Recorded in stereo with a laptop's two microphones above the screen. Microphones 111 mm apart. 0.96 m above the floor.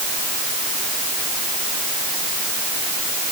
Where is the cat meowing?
No cat meowing in this recording.